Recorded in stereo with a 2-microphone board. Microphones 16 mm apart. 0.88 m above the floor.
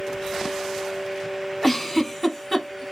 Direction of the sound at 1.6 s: 20° left (ahead or behind).